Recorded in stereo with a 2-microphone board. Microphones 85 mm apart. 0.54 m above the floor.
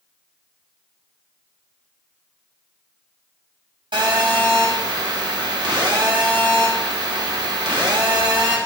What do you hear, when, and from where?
3.9 s a phone buzzing: 65° right (ahead or behind), 3 m